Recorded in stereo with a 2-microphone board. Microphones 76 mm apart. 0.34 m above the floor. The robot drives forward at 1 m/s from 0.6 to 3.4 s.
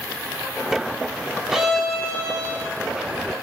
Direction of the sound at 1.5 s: 5° right (ahead or behind).